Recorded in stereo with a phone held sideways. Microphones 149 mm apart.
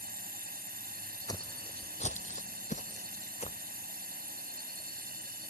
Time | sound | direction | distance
0.0 | a drone | 80° right | ?
1.3 | footsteps | 25° left (ahead or behind) | ?